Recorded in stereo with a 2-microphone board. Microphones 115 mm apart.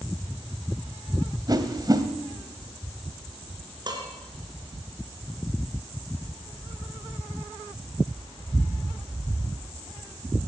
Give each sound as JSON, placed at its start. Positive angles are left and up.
{"t": 1.5, "sound": "a whoosh", "side_deg": -35, "distance_m": 1.8}
{"t": 3.9, "sound": "dishes clattering", "side_deg": -40, "distance_m": 4.0}